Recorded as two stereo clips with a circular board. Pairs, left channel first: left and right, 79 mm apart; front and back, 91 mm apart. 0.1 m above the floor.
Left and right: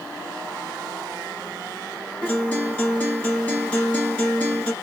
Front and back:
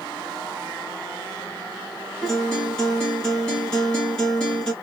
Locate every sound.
2.2 s a guitar: 60° left, 1.6 m